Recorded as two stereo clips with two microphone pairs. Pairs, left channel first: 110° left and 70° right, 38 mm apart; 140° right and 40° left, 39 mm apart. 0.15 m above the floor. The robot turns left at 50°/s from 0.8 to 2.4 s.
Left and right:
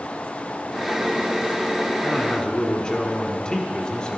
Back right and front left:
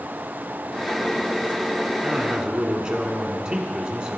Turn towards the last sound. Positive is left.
turn(degrees=85)